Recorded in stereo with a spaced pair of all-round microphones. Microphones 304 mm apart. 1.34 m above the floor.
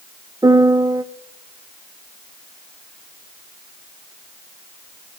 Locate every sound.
0.4 s a piano: 15° right (ahead or behind), 0.6 m